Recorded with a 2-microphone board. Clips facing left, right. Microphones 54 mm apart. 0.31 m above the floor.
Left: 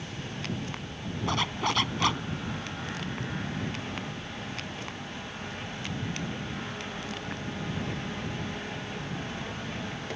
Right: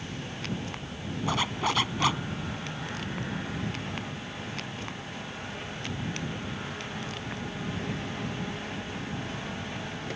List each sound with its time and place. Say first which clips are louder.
1.3 s a zipper: right 1 dB; 5° right (ahead or behind)